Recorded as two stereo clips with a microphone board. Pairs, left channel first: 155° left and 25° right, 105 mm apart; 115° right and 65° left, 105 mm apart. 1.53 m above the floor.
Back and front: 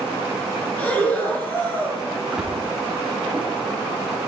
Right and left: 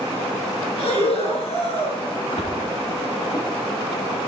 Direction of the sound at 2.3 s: 105° right.